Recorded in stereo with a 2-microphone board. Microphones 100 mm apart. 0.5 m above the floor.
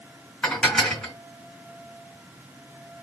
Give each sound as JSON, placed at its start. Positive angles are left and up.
{"t": 0.4, "sound": "dishes clattering", "side_deg": 10, "distance_m": 3.0}